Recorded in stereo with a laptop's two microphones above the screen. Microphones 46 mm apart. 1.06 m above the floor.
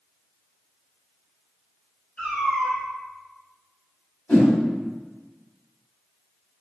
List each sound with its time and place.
2.2 s a cat meowing: 25° left (ahead or behind), 1.9 m
4.3 s a whoosh: 40° left (ahead or behind), 1.6 m